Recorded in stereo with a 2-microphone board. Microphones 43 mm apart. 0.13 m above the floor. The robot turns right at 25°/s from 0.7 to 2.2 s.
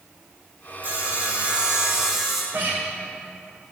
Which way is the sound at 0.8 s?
45° right.